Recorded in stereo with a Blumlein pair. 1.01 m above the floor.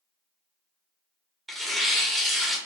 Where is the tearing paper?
10° right, 1.0 m.